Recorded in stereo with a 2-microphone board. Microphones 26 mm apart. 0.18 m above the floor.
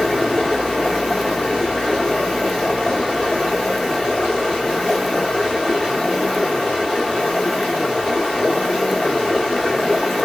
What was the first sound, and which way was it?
Running water, 40° left (ahead or behind).